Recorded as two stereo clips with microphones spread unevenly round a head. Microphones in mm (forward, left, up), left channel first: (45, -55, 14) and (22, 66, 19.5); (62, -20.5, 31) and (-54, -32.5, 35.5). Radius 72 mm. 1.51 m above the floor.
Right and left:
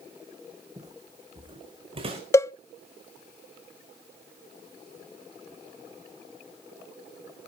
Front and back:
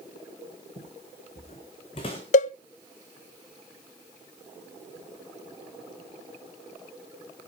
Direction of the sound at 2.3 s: 10° right.